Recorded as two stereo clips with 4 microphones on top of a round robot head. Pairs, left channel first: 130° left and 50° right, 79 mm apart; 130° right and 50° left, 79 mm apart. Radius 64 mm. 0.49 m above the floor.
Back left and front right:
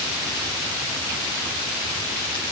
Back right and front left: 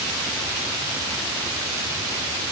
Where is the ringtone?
I don't hear a ringtone.